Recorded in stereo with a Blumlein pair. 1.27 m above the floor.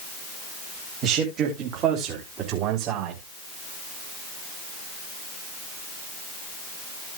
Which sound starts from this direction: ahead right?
A man speaking, at 1.0 s.